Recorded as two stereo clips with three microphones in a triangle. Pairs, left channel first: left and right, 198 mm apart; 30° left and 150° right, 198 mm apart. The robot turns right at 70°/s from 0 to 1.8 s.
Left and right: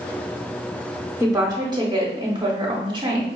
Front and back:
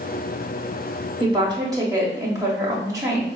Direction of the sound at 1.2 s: 150° right.